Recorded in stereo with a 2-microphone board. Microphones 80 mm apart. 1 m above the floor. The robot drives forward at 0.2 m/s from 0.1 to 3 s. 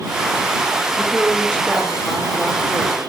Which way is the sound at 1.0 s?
25° left (ahead or behind).